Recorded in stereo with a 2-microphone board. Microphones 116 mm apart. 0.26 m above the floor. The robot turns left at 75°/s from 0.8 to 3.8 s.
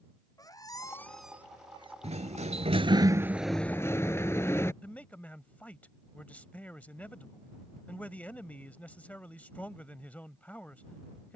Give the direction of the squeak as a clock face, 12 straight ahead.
11 o'clock.